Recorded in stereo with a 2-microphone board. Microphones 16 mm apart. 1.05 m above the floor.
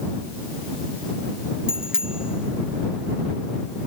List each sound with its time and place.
1.7 s a bicycle bell: 50° right (ahead or behind); by 3.9 s 55° right (ahead or behind)